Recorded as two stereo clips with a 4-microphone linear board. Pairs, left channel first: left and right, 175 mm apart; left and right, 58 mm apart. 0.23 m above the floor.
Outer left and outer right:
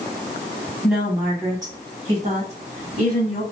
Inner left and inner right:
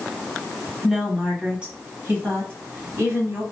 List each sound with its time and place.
0.8 s a woman speaking: centre (ahead or behind), 1.3 m; by 3.4 s 50° right (ahead or behind), 1.5 m